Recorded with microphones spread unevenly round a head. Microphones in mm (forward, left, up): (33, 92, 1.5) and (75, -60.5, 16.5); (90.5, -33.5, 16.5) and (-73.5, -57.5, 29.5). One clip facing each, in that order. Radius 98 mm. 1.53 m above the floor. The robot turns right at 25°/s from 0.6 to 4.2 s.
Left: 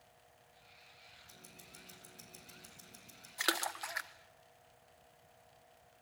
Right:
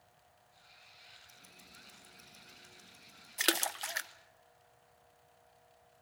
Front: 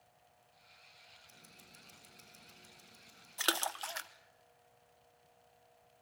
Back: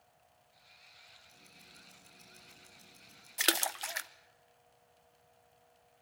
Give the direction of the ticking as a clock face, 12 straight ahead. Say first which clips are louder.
Left 4 dB, even; 10 o'clock.